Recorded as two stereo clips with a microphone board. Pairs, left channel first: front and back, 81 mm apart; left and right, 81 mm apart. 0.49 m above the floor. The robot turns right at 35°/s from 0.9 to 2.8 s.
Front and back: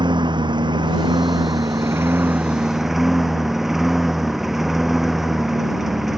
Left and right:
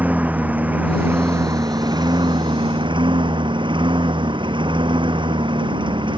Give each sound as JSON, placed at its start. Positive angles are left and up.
{"t": 0.0, "sound": "a lawn mower", "azimuth_deg": -160}